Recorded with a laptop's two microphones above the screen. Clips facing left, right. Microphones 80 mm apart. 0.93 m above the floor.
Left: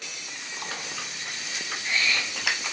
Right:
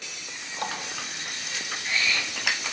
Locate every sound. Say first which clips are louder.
0.6 s a running tap: right 4 dB; 60° right (ahead or behind), 3.5 m